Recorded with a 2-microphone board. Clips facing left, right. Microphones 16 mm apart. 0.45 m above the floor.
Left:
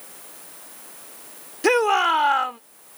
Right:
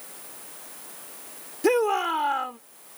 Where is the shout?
35° left (ahead or behind).